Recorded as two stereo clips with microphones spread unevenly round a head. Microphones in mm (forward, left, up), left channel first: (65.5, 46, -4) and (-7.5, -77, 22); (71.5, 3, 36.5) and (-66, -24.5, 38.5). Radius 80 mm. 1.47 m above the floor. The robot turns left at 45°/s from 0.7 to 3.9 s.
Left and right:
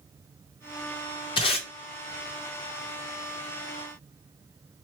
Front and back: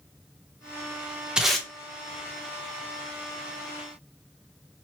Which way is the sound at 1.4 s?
105° left.